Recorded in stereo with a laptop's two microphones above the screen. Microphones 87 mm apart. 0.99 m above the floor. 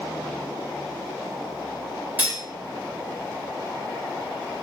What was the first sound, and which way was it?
Cutlery clinking, 20° right (ahead or behind).